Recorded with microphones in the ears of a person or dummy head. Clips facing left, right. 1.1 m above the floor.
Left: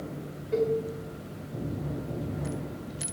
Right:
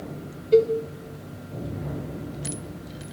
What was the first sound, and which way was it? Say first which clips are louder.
A cowbell: right 9 dB; 20° right (ahead or behind).